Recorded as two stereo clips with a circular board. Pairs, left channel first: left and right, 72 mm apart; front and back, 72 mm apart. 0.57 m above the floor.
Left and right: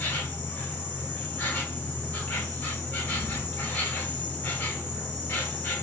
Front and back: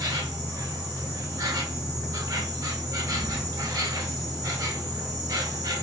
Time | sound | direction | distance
0.0 | an insect | 150° left | 0.9 m